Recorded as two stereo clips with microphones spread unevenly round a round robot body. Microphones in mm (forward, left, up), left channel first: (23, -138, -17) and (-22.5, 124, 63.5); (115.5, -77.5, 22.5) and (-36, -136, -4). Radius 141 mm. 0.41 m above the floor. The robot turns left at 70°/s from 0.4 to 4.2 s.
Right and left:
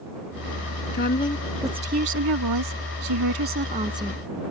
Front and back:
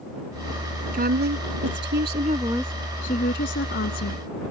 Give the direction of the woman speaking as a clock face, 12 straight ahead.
4 o'clock.